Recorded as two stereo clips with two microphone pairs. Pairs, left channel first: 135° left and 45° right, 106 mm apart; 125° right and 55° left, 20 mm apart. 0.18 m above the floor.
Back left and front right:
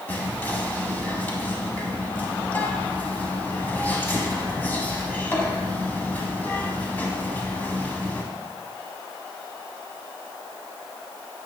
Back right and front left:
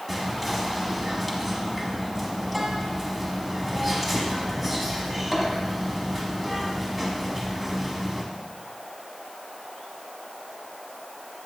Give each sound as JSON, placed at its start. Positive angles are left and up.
{"t": 0.1, "sound": "whispering", "azimuth_deg": 160, "distance_m": 1.0}